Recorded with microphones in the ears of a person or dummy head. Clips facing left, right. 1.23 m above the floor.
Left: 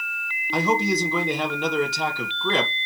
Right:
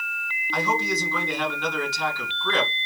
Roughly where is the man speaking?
Left.